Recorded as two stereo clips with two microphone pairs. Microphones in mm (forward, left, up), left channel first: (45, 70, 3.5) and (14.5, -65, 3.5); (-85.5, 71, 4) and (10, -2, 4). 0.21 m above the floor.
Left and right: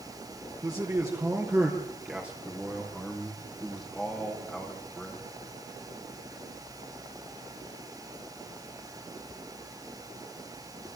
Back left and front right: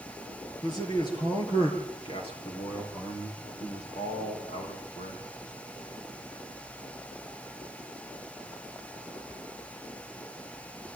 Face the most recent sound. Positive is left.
turn(degrees=160)